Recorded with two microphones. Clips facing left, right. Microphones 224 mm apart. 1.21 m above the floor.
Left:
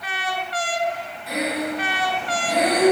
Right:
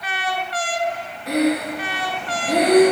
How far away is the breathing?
About 1.9 m.